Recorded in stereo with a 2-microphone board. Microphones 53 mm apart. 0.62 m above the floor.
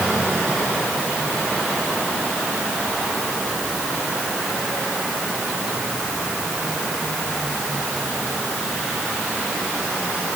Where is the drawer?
I don't hear a drawer.